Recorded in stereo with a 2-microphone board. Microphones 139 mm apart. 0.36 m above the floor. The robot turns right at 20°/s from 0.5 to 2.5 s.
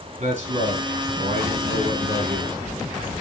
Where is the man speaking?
120° right, 3.5 m; by 2.6 s 80° right, 3.5 m.